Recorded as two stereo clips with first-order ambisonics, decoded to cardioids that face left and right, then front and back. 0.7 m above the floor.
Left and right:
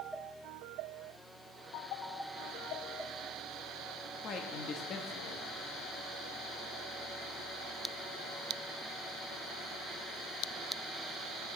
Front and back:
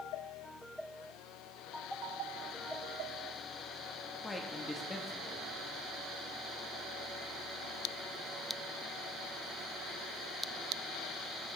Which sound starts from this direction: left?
A man speaking, at 4.2 s.